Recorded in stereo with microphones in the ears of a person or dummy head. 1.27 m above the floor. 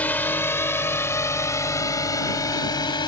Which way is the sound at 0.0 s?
5° left (ahead or behind).